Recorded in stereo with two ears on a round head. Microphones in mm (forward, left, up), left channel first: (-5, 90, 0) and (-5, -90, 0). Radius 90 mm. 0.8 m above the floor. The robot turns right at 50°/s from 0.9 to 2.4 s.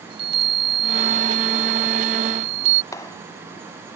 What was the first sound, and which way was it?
A chime, 150° right.